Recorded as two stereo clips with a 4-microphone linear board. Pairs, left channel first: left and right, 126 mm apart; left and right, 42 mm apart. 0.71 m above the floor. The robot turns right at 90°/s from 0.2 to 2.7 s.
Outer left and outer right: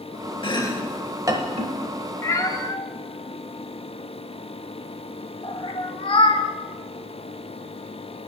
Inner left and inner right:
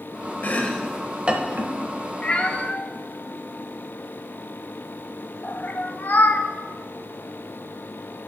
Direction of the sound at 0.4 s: 45° left (ahead or behind).